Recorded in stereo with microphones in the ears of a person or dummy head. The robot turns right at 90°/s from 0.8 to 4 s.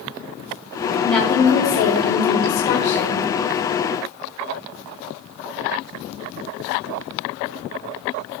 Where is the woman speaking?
5° right, 1.6 m; by 3.3 s 165° right, 1.6 m.